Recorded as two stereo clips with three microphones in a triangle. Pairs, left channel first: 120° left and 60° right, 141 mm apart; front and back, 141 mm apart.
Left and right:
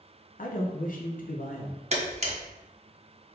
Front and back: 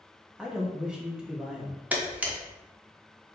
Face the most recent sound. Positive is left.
turn(degrees=-100)